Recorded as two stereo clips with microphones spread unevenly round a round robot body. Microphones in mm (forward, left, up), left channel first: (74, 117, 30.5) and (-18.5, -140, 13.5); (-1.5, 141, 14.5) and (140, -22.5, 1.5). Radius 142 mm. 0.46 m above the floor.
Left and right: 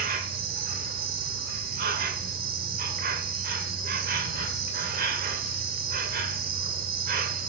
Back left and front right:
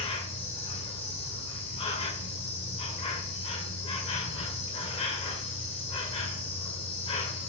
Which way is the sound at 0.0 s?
160° right.